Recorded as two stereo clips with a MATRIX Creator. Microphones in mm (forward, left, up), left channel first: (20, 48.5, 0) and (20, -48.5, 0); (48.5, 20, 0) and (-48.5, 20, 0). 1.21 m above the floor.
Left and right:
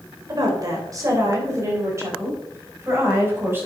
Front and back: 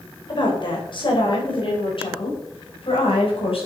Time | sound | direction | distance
0.3 | a woman speaking | 40° right | 4 m